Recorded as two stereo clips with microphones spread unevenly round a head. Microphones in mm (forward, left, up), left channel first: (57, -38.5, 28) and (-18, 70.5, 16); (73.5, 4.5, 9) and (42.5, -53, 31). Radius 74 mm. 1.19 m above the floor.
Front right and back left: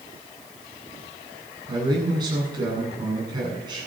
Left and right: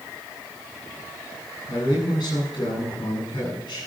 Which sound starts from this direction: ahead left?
A man speaking, at 1.7 s.